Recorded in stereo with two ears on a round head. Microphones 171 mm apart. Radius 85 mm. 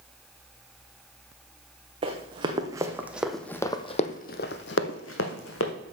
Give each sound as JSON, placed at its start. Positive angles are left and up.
{"t": 2.0, "sound": "running footsteps", "side_deg": -30, "distance_m": 1.6}